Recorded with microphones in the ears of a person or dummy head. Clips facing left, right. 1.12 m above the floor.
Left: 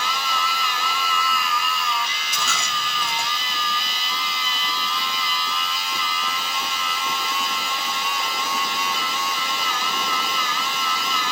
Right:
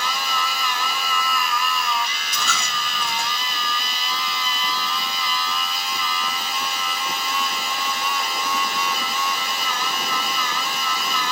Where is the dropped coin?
15° left (ahead or behind), 3 m.